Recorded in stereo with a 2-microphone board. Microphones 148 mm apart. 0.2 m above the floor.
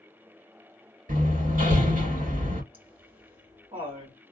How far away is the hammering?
About 2.5 m.